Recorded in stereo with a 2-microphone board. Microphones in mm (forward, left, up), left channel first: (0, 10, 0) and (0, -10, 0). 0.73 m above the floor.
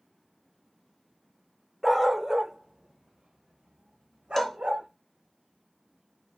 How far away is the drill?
I don't hear a drill.